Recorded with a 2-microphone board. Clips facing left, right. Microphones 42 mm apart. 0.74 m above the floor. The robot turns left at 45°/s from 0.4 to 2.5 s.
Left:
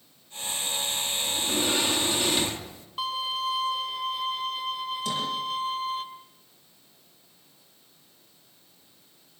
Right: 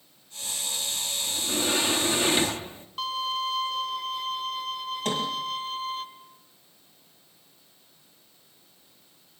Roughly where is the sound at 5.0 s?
Right.